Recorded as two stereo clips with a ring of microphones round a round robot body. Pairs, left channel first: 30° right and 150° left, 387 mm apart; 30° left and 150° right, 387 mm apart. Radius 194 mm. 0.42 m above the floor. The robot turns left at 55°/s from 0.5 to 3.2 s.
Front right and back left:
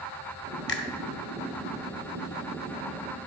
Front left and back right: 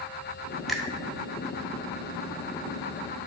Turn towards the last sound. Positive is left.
turn(degrees=165)